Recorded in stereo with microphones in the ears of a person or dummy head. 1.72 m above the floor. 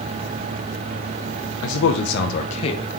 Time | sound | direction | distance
1.6 | a man speaking | 80° left | 0.7 m